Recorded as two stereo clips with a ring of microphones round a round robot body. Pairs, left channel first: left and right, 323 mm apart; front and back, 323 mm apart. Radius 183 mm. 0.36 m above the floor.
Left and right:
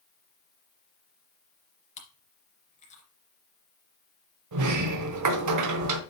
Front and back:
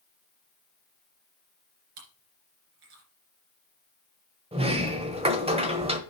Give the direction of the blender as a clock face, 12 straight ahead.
No blender in this recording.